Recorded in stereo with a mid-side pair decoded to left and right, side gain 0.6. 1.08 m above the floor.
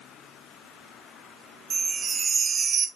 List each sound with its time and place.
1.7 s a chime: 40° right, 1.0 m